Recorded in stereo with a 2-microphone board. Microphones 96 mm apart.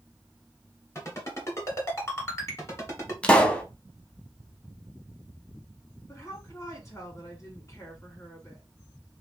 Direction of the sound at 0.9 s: 30° left (ahead or behind).